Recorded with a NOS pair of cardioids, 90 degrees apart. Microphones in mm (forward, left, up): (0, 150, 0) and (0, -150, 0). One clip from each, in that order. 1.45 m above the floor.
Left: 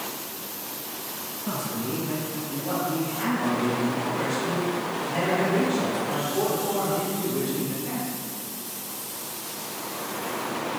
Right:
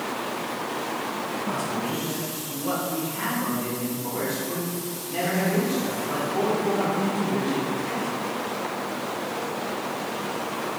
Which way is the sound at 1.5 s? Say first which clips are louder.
Left 1 dB; 5° right.